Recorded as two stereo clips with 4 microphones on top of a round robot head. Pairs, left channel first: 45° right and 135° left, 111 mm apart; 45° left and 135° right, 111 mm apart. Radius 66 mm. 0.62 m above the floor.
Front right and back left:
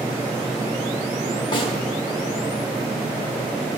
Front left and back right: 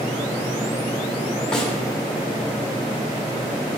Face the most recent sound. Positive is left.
turn(degrees=-35)